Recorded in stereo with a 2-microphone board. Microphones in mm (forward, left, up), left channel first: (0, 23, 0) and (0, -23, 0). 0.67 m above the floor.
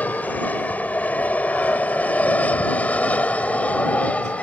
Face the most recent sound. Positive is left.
turn(degrees=30)  # may be behind; listen again after turning